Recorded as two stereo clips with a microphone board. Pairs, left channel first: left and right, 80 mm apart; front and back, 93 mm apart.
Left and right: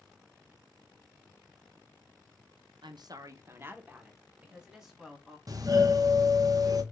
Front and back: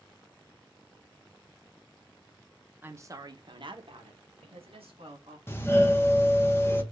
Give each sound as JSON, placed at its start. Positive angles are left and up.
{"t": 2.8, "sound": "a woman speaking", "azimuth_deg": -110, "distance_m": 0.6}
{"t": 5.5, "sound": "a doorbell", "azimuth_deg": -60, "distance_m": 0.7}